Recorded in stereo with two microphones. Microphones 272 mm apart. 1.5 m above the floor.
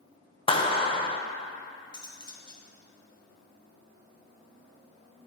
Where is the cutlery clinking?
15° left (ahead or behind), 0.8 m.